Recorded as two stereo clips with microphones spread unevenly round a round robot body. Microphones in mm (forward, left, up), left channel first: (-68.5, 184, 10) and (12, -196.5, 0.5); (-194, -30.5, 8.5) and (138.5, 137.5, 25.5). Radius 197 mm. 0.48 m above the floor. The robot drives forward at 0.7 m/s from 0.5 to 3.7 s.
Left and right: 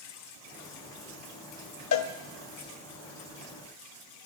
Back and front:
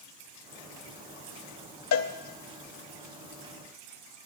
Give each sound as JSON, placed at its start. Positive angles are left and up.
{"t": 1.9, "sound": "a cowbell", "azimuth_deg": 155, "distance_m": 0.5}